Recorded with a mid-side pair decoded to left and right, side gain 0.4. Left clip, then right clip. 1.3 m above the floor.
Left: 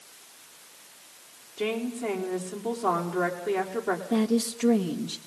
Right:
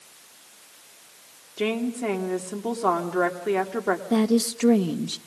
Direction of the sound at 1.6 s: 50° right.